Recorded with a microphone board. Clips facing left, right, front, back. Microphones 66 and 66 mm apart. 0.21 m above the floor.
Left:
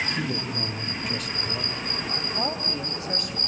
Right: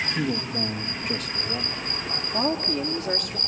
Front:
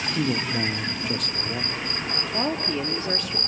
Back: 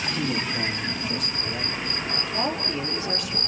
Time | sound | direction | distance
0.1 | a man speaking | 35° right | 3.5 m
2.3 | a woman speaking | 50° right | 3.5 m